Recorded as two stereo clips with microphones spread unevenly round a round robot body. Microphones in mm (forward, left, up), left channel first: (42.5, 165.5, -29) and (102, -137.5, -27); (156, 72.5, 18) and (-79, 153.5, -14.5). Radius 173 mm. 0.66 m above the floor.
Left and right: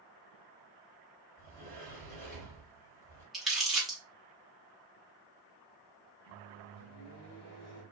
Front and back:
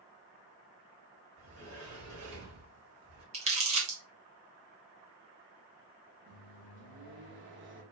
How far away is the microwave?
About 1.1 m.